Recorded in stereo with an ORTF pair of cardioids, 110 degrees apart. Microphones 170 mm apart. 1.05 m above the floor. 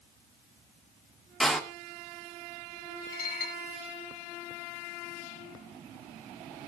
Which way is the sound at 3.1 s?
60° left.